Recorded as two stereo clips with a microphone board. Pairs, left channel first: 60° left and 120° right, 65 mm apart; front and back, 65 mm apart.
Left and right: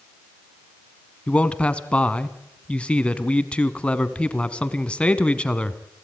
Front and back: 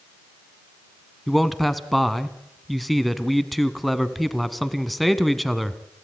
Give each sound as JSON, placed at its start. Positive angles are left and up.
{"t": 1.3, "sound": "a man speaking", "azimuth_deg": 90, "distance_m": 1.2}